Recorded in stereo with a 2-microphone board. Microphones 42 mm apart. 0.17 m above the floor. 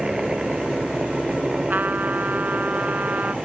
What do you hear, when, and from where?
0.0 s a helicopter: 15° right (ahead or behind)
1.7 s a trumpet: 45° right (ahead or behind)